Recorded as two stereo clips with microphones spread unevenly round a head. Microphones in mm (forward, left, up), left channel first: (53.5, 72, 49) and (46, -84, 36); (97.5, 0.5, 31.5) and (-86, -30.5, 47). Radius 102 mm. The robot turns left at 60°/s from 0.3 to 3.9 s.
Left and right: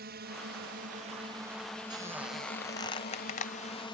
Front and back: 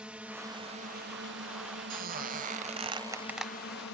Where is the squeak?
160° right; by 3.5 s 100° left.